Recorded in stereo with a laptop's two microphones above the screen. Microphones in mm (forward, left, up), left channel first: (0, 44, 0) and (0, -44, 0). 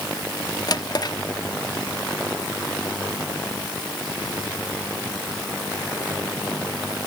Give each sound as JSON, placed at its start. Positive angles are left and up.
{"t": 0.7, "sound": "a drawer", "side_deg": 50, "distance_m": 1.2}